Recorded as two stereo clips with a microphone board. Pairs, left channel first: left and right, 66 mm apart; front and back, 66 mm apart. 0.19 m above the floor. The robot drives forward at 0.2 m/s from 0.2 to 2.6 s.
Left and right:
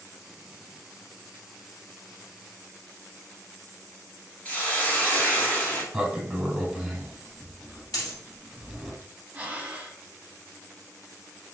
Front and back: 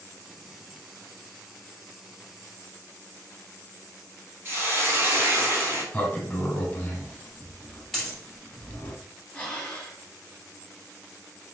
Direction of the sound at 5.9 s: 20° right.